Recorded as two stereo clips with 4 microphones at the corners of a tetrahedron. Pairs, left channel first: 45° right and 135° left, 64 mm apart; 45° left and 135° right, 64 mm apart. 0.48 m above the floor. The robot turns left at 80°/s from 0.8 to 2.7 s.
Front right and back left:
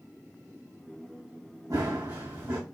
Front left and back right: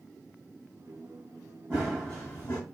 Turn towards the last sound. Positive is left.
turn(degrees=80)